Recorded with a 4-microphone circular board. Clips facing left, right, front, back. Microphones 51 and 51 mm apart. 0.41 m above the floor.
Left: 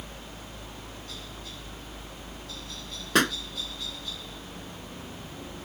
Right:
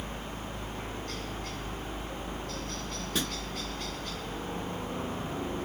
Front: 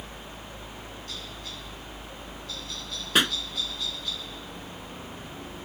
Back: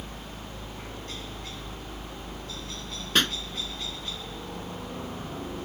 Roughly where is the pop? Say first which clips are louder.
Left 11 dB, front 1 dB; left.